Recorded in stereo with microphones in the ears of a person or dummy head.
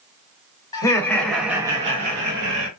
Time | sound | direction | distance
0.7 | laughter | 20° left (ahead or behind) | 0.9 m